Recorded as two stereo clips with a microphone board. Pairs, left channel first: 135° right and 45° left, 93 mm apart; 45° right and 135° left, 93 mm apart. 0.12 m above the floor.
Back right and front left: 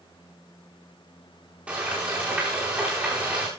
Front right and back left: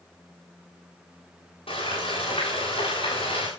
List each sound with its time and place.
1.7 s frying: 30° right, 8.5 m